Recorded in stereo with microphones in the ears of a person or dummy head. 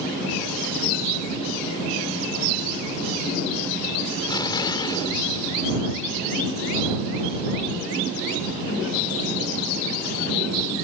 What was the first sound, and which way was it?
An explosion, 25° left (ahead or behind).